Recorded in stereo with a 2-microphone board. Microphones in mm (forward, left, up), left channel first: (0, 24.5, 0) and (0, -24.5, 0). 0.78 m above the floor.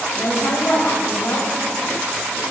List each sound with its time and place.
0.1 s a woman speaking: 85° left, 3.5 m